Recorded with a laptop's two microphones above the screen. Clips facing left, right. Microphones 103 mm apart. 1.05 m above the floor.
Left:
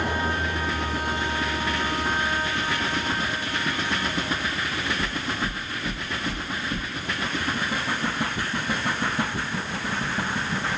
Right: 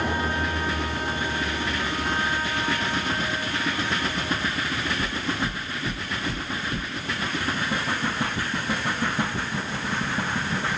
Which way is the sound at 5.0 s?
35° left (ahead or behind).